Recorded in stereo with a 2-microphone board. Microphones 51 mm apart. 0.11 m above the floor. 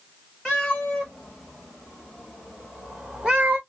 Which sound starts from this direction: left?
A cat meowing, at 0.5 s.